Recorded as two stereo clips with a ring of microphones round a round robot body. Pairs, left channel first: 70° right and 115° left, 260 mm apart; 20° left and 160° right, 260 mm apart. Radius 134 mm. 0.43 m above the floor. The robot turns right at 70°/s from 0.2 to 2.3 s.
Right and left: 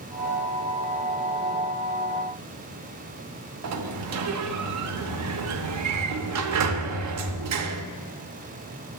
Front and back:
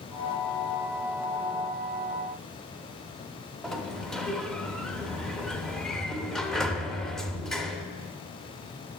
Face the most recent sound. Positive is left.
turn(degrees=110)